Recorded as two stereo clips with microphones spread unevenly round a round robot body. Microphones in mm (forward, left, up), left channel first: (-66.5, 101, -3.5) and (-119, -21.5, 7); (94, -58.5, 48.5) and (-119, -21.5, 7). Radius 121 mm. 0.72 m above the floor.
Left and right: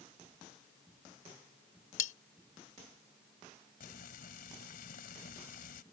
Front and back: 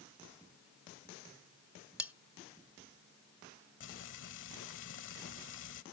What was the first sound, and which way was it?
Cutlery clinking, 85° left.